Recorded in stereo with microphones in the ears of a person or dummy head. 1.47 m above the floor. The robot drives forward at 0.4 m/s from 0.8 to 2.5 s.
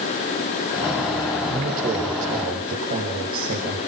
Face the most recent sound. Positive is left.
turn(degrees=-55)  # may be behind; listen again after turning